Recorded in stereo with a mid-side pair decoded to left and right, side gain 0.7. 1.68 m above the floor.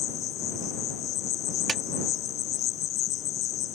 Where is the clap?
25° right.